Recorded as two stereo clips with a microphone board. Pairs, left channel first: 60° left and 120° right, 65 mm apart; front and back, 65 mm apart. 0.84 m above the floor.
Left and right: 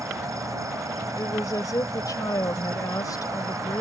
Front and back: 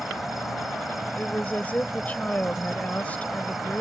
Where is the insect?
95° right.